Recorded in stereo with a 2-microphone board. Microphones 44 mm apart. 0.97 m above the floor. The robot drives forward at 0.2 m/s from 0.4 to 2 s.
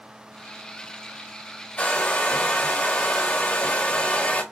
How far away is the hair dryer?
About 1.5 m.